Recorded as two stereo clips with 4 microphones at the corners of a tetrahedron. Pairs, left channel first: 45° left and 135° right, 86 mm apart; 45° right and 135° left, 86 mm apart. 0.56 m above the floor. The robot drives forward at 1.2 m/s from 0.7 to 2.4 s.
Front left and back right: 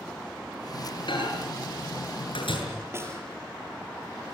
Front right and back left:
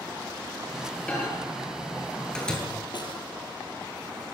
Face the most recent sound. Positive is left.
turn(degrees=-75)